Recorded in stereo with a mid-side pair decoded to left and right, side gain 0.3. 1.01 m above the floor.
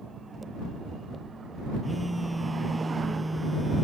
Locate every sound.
1.8 s a phone buzzing: straight ahead